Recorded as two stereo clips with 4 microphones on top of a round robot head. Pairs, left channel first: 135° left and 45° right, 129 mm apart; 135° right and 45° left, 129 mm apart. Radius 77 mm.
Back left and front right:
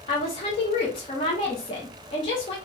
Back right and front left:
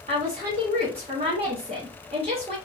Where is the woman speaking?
90° left, 0.8 m.